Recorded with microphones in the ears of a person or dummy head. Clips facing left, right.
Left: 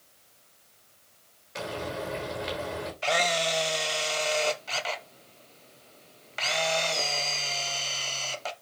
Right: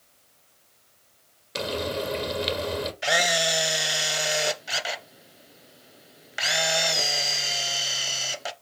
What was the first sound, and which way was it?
Frying, 45° right (ahead or behind).